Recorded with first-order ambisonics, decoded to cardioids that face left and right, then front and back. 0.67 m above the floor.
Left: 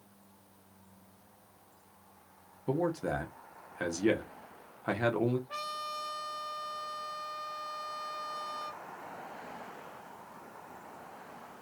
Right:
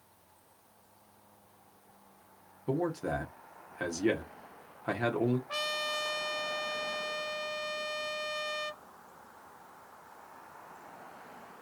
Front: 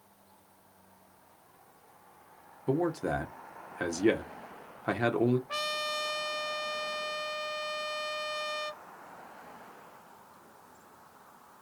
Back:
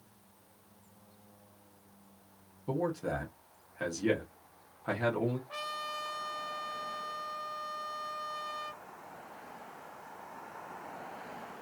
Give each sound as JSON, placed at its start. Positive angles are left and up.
{"t": 2.7, "sound": "a man speaking", "azimuth_deg": 5, "distance_m": 0.7}
{"t": 5.5, "sound": "a trumpet", "azimuth_deg": -40, "distance_m": 0.5}